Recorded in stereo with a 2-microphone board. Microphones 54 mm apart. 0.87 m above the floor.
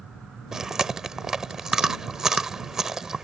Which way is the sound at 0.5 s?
10° right (ahead or behind).